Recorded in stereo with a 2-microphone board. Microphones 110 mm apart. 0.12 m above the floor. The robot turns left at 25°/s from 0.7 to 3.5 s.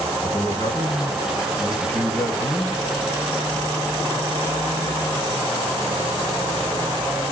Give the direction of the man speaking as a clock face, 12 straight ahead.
10 o'clock.